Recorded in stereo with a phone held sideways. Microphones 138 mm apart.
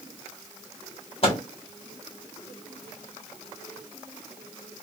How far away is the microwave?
About 1.4 m.